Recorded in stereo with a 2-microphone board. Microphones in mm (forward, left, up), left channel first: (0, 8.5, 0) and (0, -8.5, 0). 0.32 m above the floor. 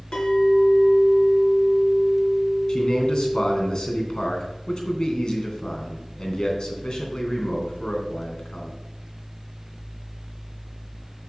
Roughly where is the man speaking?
Left.